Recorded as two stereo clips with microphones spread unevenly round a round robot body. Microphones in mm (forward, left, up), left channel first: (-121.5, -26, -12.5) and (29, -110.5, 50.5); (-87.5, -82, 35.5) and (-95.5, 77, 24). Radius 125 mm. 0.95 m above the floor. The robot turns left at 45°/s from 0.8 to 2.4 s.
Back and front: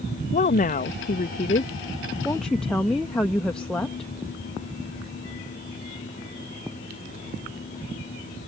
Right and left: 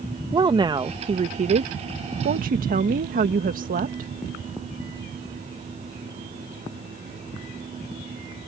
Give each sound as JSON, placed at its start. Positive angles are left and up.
{"t": 0.3, "sound": "a woman speaking", "azimuth_deg": 150}